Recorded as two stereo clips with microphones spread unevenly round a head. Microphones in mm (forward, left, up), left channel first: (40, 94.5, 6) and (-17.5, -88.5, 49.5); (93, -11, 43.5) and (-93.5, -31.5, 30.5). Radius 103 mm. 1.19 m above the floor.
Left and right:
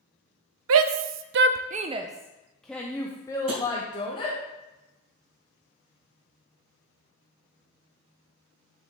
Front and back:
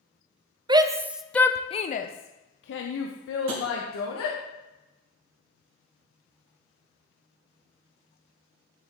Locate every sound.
0.7 s a shout: 110° right, 0.7 m; by 4.4 s 10° left, 1.5 m
3.5 s tapping: 160° right, 3 m